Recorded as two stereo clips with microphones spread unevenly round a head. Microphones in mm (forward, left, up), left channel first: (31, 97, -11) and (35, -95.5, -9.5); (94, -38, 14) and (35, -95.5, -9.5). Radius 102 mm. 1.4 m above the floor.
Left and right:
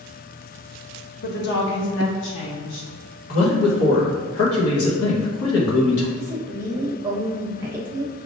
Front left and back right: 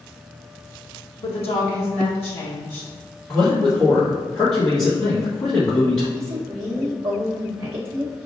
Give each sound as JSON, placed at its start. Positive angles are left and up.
{"t": 1.2, "sound": "a woman speaking", "azimuth_deg": 50, "distance_m": 0.9}
{"t": 3.3, "sound": "a man speaking", "azimuth_deg": 105, "distance_m": 1.3}
{"t": 6.2, "sound": "a woman speaking", "azimuth_deg": -165, "distance_m": 1.1}